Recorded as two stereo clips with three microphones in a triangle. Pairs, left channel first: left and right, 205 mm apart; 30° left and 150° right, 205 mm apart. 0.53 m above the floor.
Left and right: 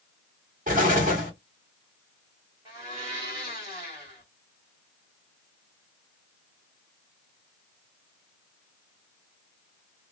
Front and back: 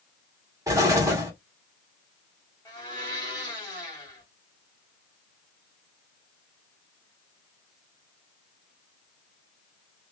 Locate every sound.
0.7 s an explosion: 85° right, 1.5 m
2.6 s a blender: 30° right, 1.7 m